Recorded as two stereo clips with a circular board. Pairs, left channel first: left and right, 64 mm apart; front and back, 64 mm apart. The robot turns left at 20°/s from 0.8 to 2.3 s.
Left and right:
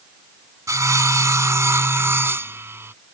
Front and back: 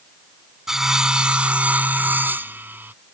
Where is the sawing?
100° right; by 2.9 s 130° right.